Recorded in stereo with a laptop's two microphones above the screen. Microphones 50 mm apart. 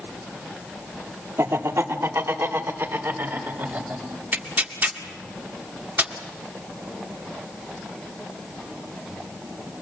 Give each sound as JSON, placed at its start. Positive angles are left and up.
{"t": 1.4, "sound": "laughter", "side_deg": -80, "distance_m": 3.0}
{"t": 4.3, "sound": "tearing paper", "side_deg": -40, "distance_m": 2.0}